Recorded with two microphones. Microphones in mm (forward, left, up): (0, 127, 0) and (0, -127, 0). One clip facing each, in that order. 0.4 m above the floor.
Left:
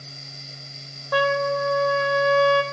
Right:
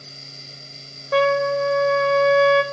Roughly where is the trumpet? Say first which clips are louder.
Right 4 dB; right.